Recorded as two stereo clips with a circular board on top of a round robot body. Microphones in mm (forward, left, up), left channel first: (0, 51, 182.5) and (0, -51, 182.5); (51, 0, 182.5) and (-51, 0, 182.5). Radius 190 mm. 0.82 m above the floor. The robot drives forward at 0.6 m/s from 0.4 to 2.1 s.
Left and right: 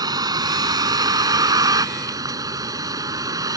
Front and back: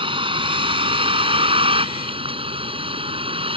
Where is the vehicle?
140° right; by 3.6 s 145° right.